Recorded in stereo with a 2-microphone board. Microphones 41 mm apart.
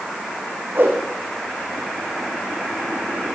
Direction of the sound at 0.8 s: 50° right (ahead or behind).